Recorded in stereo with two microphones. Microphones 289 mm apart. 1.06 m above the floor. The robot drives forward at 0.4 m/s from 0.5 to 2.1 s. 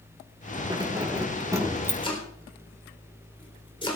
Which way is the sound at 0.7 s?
15° right (ahead or behind).